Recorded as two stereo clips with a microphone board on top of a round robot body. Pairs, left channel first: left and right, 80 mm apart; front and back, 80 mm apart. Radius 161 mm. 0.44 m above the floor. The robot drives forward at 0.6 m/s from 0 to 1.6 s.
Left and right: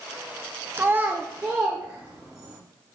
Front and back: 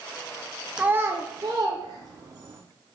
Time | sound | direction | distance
0.8 | a child speaking | 110° right | 0.5 m